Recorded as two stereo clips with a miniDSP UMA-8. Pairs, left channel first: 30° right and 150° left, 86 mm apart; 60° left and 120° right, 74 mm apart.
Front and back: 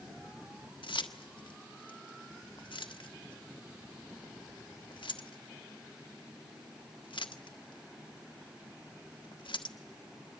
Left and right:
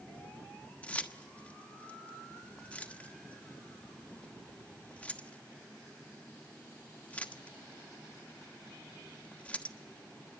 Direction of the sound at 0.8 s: 10° right.